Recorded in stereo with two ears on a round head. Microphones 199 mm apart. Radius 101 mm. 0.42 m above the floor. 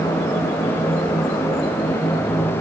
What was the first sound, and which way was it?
Only background noise.